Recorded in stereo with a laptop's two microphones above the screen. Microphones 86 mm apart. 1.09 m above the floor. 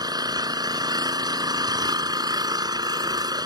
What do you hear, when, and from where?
0.0 s an engine running: 50° right (ahead or behind)